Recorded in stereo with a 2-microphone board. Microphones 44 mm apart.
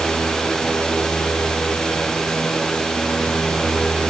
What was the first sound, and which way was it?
Only background noise.